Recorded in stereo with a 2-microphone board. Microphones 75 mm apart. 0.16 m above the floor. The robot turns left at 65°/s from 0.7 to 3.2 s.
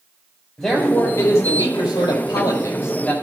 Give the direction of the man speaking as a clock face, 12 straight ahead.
6 o'clock.